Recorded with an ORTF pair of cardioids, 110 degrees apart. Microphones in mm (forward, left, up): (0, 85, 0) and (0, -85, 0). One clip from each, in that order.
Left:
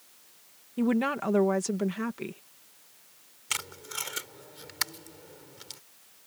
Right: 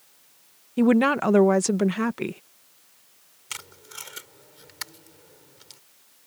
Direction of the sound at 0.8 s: 45° right.